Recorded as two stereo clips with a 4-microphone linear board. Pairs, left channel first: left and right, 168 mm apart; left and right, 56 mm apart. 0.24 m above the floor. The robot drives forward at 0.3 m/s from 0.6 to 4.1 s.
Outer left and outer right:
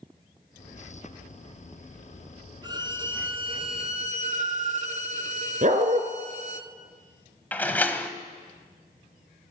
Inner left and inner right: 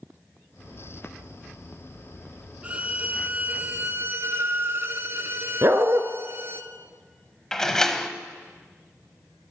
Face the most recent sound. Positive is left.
turn(degrees=10)  # may be behind; listen again after turning